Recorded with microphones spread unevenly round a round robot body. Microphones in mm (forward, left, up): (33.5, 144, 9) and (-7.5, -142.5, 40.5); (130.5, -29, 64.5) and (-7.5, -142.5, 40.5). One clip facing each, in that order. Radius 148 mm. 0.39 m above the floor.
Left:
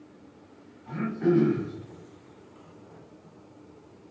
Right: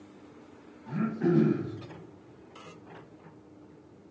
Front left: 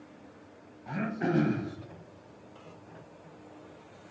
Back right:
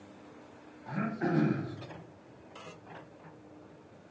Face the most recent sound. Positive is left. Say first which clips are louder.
# left 2 dB, front left 2 dB
turn(degrees=-25)